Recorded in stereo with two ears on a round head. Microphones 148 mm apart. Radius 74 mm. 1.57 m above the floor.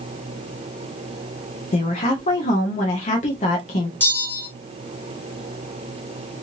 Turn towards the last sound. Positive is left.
turn(degrees=15)  # may be behind; listen again after turning